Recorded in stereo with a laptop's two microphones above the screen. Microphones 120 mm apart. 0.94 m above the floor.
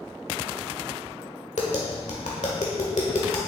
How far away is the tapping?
About 1.5 m.